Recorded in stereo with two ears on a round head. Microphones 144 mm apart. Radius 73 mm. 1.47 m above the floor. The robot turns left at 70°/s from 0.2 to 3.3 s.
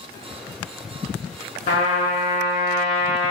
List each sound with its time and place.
1.7 s a trumpet: 105° left, 1.4 m; by 3.3 s 10° right, 1.4 m